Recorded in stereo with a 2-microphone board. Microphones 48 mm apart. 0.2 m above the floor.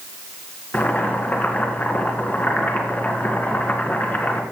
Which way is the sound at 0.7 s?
30° left (ahead or behind).